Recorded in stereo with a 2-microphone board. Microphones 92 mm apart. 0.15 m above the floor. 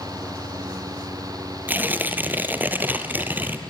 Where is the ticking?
I don't hear ticking.